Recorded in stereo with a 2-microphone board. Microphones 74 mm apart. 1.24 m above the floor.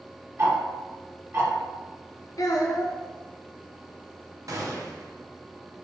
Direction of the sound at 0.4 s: 35° right (ahead or behind).